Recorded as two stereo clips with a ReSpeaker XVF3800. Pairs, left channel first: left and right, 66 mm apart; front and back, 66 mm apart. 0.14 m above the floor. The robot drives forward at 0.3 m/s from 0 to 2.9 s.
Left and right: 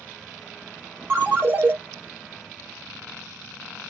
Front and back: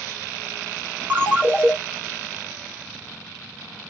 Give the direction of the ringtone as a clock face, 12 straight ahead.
4 o'clock.